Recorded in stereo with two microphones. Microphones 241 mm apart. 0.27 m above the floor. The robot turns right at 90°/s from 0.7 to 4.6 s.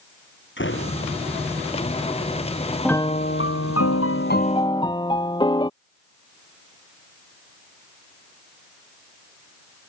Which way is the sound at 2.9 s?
5° left.